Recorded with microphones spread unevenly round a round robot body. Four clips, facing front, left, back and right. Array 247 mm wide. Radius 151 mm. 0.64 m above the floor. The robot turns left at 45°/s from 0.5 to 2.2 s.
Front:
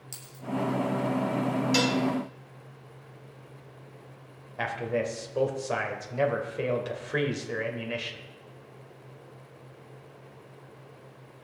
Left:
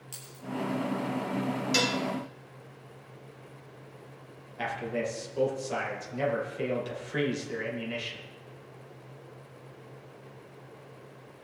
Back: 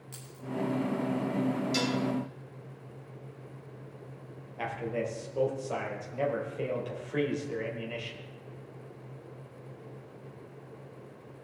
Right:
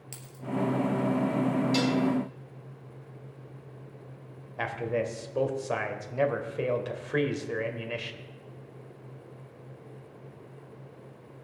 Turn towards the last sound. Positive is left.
turn(degrees=-25)